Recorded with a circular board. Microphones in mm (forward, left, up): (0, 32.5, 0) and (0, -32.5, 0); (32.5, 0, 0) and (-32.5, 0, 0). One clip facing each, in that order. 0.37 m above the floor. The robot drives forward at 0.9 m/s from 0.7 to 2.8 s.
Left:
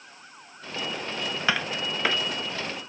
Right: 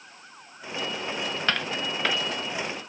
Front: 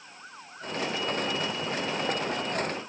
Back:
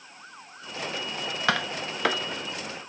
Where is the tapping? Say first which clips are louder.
Left 2 dB, back 3 dB; 170° left.